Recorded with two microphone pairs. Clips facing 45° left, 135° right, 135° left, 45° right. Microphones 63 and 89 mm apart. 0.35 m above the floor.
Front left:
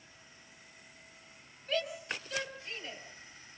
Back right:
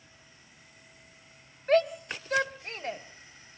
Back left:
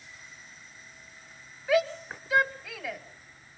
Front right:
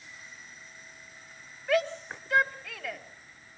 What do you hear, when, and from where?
1.7 s a shout: 140° right, 2.5 m